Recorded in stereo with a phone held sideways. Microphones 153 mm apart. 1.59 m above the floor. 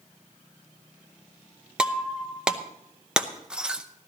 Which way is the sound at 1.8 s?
5° right (ahead or behind).